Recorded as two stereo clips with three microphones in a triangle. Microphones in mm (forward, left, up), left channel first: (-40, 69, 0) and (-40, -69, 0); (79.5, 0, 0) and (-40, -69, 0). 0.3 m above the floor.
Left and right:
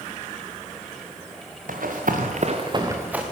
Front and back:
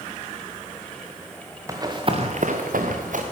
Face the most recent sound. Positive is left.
turn(degrees=-175)